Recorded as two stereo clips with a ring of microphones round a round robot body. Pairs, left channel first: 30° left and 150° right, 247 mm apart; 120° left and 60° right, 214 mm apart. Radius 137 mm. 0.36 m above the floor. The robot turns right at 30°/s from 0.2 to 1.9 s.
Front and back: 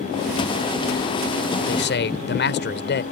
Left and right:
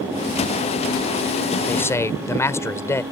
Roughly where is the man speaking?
Ahead left.